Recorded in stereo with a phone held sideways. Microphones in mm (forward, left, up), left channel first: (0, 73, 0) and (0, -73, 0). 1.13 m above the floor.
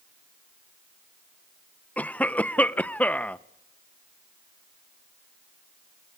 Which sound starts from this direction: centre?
A cough, at 2.0 s.